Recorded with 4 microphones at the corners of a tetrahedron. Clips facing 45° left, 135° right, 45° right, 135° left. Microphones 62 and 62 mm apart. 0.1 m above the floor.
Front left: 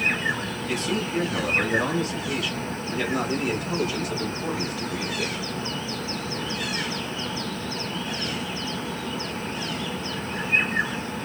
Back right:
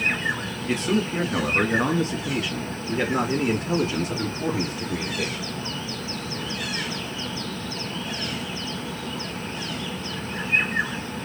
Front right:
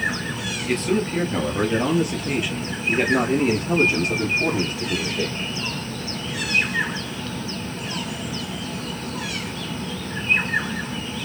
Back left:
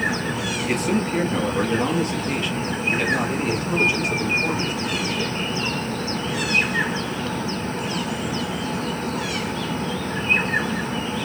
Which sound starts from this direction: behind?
A man speaking, at 0.7 s.